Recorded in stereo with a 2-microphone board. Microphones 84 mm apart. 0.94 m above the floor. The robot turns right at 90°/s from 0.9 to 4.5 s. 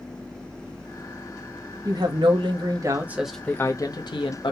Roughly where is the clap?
No clap in this recording.